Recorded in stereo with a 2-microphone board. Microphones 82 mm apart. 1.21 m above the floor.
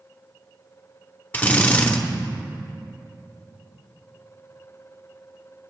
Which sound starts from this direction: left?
A drill, at 1.3 s.